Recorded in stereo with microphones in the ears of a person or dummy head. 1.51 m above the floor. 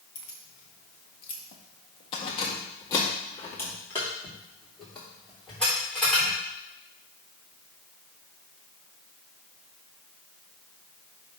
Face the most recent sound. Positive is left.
turn(degrees=5)  # may be behind; listen again after turning